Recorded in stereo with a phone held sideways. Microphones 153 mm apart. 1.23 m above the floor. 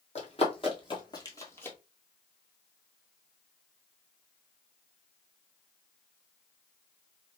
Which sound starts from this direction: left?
Running footsteps, at 0.1 s.